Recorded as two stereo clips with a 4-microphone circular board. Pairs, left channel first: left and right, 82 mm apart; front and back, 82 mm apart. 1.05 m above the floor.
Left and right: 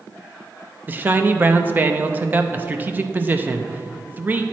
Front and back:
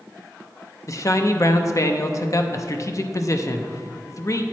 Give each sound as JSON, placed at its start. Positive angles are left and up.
{"t": 0.9, "sound": "a man speaking", "azimuth_deg": -30, "distance_m": 0.6}